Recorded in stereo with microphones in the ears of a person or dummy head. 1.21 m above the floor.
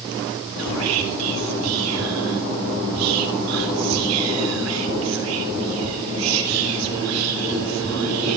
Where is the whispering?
80° right, 4 m.